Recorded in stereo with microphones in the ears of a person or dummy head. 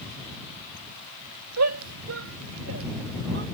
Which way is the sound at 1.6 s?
90° right.